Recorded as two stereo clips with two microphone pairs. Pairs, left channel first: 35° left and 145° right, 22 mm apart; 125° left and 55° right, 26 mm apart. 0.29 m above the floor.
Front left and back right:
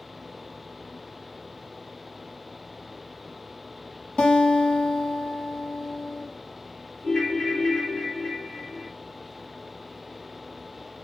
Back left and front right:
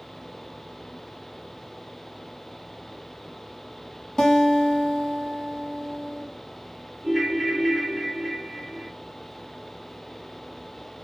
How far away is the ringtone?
About 1.2 m.